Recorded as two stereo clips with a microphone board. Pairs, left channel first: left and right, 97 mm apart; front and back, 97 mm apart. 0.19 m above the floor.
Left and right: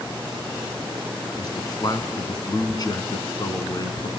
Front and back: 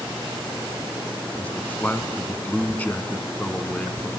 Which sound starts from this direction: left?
A man speaking, at 1.4 s.